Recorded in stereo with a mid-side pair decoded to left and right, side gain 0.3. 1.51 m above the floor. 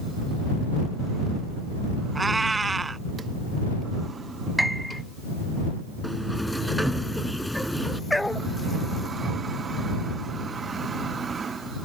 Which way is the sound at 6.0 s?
Straight ahead.